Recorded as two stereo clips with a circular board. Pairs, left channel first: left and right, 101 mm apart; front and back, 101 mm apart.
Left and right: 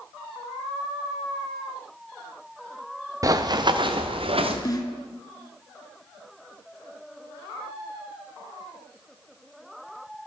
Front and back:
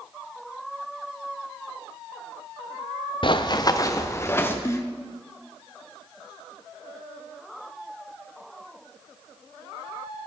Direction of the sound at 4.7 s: 55° left.